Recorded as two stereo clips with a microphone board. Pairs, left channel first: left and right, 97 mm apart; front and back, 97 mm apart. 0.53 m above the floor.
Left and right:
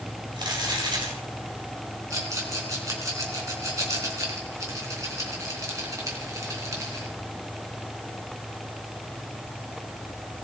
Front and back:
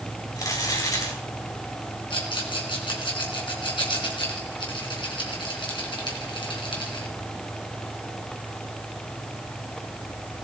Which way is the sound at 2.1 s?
35° right.